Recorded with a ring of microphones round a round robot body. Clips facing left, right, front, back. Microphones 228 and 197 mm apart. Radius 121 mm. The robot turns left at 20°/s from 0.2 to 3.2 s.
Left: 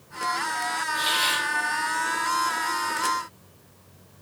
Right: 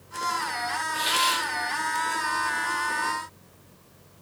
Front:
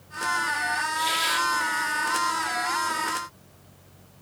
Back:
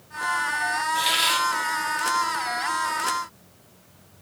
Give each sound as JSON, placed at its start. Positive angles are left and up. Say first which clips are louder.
{"t": 0.9, "sound": "a hiss", "louder": "right 1 dB, back 2 dB", "azimuth_deg": -175, "distance_m": 2.5}